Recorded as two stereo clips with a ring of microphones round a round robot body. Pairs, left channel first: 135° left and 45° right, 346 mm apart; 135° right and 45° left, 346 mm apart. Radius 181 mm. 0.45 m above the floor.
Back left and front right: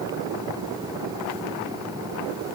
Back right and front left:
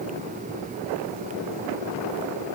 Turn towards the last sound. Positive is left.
No sound to turn to.